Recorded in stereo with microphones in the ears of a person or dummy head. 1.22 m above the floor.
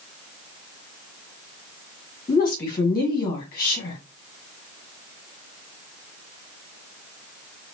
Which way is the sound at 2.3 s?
25° left (ahead or behind).